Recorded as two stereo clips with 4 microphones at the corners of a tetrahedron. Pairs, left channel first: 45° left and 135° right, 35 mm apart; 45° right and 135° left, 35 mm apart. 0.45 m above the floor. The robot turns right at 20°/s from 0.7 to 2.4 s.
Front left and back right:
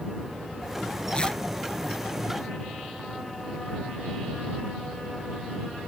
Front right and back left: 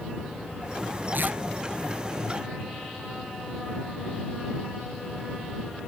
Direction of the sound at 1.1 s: 110° left.